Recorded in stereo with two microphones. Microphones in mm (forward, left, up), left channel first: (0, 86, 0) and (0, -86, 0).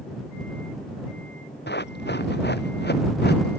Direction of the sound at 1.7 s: 80° left.